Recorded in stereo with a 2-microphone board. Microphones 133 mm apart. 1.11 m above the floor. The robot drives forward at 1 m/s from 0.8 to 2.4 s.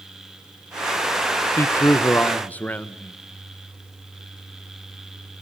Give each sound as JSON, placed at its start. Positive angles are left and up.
{"t": 1.6, "sound": "a man speaking", "side_deg": 25, "distance_m": 0.7}